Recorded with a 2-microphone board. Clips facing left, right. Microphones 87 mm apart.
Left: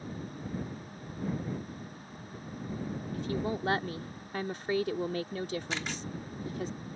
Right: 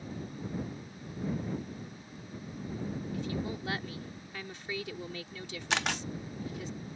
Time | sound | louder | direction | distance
3.1 | a woman speaking | left 6 dB | 50° left (ahead or behind) | ?
5.7 | a camera shutter | right 4 dB | 75° right (ahead or behind) | ?